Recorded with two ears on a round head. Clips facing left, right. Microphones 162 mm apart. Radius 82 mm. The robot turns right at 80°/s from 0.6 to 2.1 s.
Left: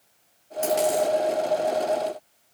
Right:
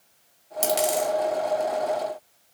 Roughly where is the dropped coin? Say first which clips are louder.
Left 2 dB; right.